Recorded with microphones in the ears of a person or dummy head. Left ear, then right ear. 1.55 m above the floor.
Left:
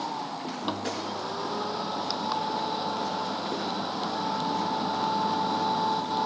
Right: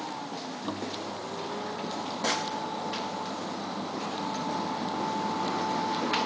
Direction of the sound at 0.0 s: 65° left (ahead or behind).